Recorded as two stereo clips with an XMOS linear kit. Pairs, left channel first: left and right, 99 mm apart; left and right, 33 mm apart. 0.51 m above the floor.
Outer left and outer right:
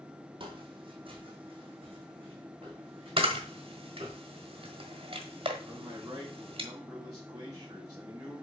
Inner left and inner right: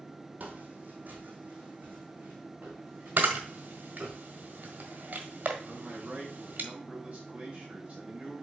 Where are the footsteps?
55° right (ahead or behind), 1.3 m; by 4.2 s 60° right (ahead or behind), 3.5 m.